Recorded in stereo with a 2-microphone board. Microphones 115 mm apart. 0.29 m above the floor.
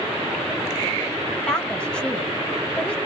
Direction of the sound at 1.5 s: 10° left (ahead or behind).